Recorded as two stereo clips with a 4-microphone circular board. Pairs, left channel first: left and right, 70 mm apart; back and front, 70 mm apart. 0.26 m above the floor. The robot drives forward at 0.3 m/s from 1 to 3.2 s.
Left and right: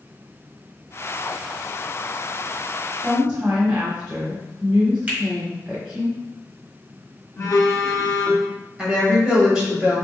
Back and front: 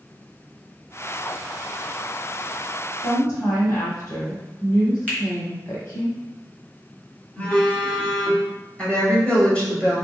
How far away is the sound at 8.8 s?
About 1.0 m.